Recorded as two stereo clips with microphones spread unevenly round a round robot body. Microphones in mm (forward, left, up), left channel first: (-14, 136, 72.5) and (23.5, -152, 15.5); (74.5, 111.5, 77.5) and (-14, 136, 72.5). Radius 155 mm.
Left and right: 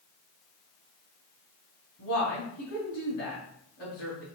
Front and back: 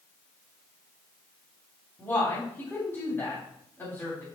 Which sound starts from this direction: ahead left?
A woman speaking, at 2.0 s.